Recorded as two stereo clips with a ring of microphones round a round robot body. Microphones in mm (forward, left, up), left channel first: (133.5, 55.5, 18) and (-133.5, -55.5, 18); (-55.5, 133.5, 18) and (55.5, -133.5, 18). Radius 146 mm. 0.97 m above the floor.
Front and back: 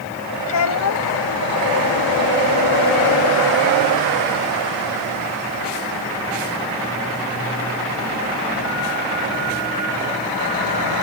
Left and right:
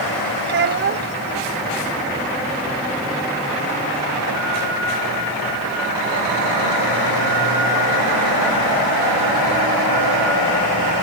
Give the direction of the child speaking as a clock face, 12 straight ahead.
12 o'clock.